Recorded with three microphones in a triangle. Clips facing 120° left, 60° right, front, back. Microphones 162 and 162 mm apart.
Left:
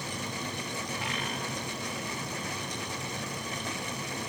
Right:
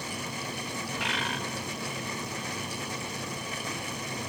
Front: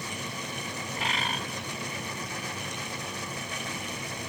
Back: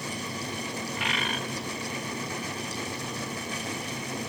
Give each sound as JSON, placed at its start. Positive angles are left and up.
{"t": 1.0, "sound": "a bird", "azimuth_deg": -55, "distance_m": 1.0}